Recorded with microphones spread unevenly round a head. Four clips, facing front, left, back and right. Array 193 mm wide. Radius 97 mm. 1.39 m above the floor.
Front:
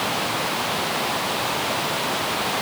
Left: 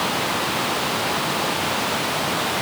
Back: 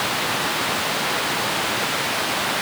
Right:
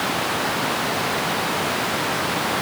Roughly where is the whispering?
I don't hear whispering.